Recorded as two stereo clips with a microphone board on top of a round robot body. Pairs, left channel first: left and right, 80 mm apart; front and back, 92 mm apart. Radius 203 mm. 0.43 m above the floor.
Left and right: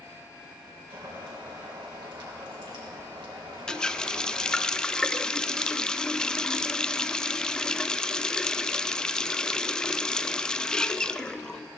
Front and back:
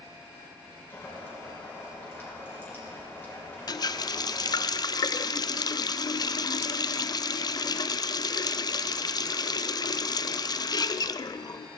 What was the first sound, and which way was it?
Boiling, 65° right.